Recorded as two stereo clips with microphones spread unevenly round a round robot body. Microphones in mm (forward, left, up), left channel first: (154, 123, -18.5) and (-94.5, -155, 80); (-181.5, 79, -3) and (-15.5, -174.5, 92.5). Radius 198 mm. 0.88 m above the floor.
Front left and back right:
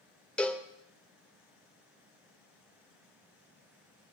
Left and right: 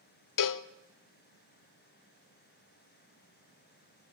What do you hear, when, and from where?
0.4 s a cowbell: 150° left, 0.7 m